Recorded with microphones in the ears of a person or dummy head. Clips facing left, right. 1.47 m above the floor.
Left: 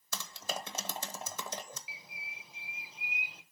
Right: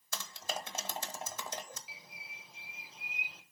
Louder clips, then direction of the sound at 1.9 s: Left 2 dB; 5° left (ahead or behind).